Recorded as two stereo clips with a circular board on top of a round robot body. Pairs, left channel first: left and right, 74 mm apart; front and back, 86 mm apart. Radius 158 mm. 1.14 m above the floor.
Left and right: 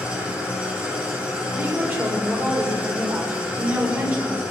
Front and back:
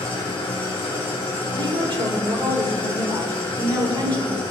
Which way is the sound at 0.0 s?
15° right.